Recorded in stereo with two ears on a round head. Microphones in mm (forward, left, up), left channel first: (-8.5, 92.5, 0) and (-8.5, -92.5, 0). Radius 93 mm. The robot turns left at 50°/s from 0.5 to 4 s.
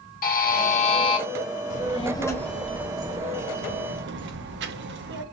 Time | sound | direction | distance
0.2 | a buzzer | 60° left | 0.8 m
1.7 | a child speaking | 40° left (ahead or behind) | 0.7 m